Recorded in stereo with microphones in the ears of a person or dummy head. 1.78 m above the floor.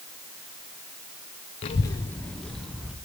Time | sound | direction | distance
1.6 | a child speaking | 20° left (ahead or behind) | 0.5 m